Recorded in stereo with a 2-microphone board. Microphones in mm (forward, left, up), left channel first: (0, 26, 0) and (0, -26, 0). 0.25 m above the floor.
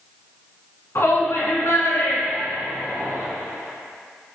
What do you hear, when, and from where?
0.9 s a shout: 60° left (ahead or behind), 2 m; by 3.3 s 70° left (ahead or behind), 3.5 m